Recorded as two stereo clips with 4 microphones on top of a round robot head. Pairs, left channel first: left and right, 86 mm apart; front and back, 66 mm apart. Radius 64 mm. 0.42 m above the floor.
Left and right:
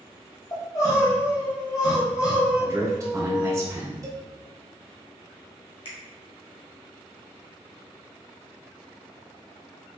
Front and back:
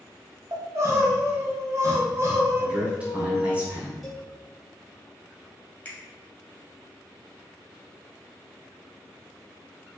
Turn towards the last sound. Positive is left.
turn(degrees=65)